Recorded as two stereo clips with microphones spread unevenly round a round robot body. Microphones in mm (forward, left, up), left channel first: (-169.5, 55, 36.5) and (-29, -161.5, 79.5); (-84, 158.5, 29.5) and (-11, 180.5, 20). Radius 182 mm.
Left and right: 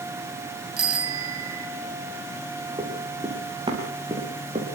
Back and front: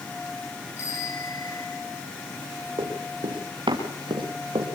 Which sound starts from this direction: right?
A bicycle bell, at 0.8 s.